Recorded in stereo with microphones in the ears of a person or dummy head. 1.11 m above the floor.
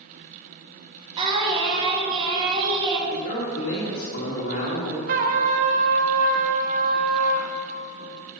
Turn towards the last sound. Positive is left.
turn(degrees=-35)  # may be behind; listen again after turning